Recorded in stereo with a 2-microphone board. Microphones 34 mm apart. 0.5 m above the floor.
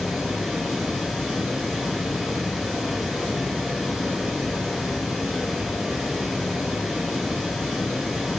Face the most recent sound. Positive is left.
turn(degrees=0)  # may be behind; listen again after turning